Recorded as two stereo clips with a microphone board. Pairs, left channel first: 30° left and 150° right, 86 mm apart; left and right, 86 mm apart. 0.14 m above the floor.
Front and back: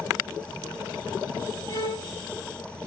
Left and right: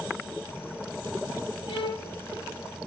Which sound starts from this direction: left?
A violin, at 1.7 s.